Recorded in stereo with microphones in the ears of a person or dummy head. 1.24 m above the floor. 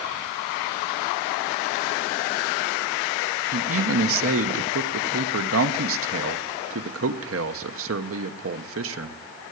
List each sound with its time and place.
3.5 s a man speaking: 65° right (ahead or behind), 0.8 m